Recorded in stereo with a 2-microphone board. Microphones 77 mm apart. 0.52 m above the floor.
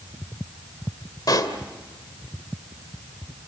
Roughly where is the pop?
Left.